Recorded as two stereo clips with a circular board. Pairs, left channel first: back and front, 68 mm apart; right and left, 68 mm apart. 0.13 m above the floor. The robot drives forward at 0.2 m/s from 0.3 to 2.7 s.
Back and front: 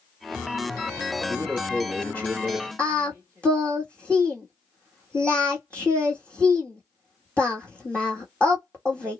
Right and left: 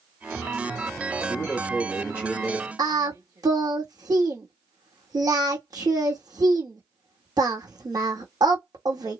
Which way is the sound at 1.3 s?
130° left.